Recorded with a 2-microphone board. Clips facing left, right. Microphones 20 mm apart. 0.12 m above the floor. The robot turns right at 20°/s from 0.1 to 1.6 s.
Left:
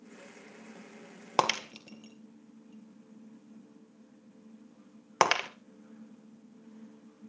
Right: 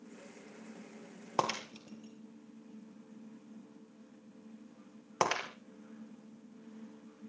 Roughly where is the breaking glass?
Left.